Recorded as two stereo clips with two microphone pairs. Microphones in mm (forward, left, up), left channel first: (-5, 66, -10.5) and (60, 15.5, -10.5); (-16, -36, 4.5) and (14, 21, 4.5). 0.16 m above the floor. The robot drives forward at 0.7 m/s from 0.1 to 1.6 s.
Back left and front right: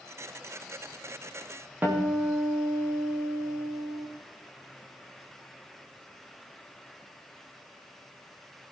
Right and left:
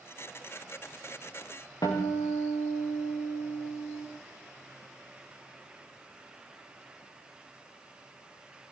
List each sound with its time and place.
1.8 s a guitar: 105° right, 5.5 m